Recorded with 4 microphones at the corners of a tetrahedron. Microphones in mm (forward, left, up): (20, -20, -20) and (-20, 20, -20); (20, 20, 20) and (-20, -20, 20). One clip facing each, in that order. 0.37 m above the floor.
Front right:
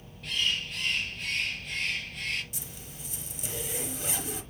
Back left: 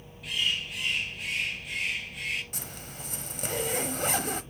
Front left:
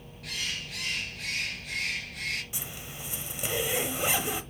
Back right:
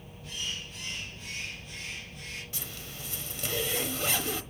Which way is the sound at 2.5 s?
115° left.